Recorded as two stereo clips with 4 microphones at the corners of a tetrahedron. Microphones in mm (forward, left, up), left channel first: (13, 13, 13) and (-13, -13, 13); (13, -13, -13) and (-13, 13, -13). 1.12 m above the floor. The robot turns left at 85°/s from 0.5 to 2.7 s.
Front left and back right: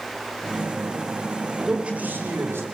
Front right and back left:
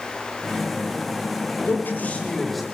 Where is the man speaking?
55° right, 5 m; by 2.6 s 140° right, 5 m.